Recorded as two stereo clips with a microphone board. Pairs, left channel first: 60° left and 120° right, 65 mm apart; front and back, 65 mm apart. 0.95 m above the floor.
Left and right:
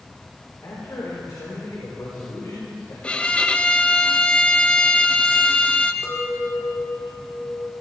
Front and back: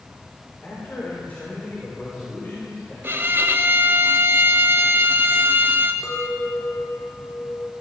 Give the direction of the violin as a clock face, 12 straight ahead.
8 o'clock.